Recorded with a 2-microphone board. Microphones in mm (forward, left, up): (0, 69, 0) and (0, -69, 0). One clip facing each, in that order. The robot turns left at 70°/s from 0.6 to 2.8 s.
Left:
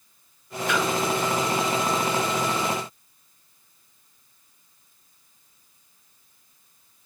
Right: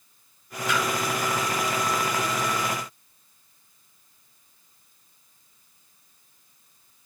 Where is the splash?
55° left (ahead or behind), 1.4 m; by 0.8 s 60° left (ahead or behind), 1.4 m.